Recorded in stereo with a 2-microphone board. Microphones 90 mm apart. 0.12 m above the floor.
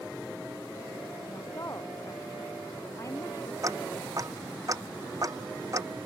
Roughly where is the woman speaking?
Left.